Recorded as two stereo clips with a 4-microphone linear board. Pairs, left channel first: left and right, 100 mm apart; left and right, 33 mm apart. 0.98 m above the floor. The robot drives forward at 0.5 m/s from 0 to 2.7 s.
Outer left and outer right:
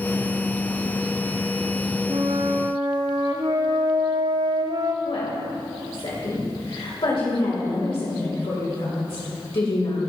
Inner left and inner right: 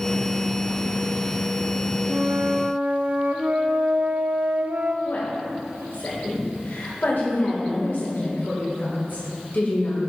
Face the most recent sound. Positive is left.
turn(degrees=75)  # may be behind; listen again after turning